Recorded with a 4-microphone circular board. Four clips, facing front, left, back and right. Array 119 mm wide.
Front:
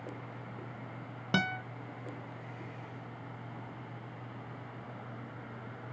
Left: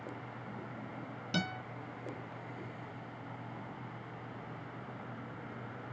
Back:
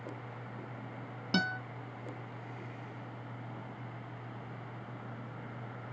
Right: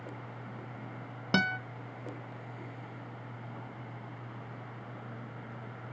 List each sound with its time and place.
1.3 s a guitar: 65° right, 0.6 m